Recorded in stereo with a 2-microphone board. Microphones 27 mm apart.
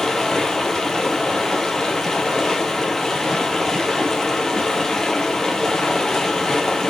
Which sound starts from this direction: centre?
Running water, at 0.0 s.